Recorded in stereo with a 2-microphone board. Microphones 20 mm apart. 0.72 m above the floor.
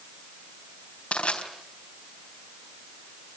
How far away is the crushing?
About 4 m.